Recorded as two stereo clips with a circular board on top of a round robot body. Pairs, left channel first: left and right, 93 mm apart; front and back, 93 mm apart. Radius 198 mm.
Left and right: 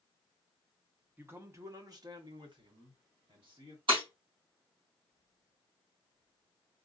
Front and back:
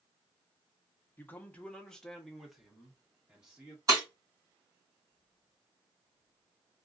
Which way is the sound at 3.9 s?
125° right.